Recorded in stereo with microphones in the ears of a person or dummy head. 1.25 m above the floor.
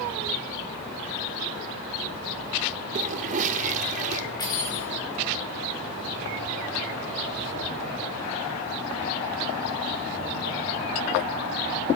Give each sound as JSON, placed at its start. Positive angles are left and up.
{"t": 3.0, "sound": "a toilet flushing", "side_deg": -45, "distance_m": 0.8}
{"t": 4.4, "sound": "cutlery clinking", "side_deg": 25, "distance_m": 5.0}